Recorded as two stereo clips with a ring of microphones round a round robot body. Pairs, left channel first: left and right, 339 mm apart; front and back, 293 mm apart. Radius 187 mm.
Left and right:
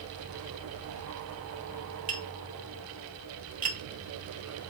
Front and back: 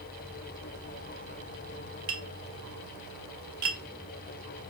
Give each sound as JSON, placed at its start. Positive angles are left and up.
{"t": 2.1, "sound": "tapping", "azimuth_deg": -155, "distance_m": 1.9}